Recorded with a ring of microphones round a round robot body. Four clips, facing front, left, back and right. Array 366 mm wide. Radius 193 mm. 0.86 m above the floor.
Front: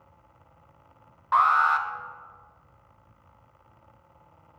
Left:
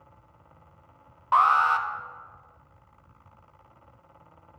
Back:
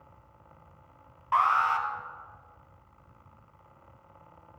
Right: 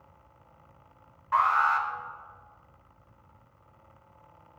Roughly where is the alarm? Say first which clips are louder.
Left 3 dB, front 4 dB; left.